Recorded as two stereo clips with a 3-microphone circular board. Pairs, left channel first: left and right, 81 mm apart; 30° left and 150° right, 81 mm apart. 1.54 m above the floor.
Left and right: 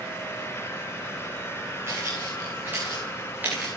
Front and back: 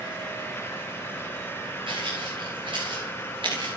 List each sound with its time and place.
1.9 s footsteps: 150° right, 6.5 m; by 3.7 s 160° right, 6.5 m